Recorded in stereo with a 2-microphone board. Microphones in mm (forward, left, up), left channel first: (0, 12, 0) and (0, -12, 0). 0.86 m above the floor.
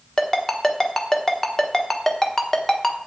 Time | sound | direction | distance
0.2 | a ringtone | 20° left (ahead or behind) | 1.3 m